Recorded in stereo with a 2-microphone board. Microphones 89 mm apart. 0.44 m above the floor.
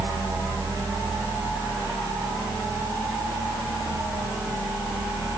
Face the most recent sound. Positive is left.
No sound to turn to.